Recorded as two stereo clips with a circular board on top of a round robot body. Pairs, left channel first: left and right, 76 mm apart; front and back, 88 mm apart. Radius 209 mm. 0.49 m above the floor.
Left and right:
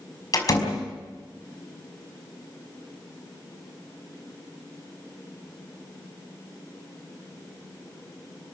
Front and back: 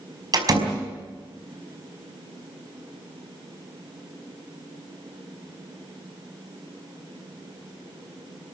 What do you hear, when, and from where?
0.3 s a door slam: 135° left, 5 m